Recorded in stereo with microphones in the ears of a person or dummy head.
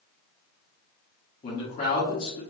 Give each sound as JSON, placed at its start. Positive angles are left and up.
{"t": 1.4, "sound": "a man speaking", "side_deg": 40, "distance_m": 1.0}